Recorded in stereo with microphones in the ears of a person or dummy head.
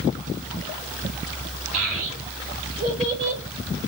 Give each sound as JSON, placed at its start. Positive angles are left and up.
{"t": 1.7, "sound": "a child speaking", "side_deg": -80, "distance_m": 1.0}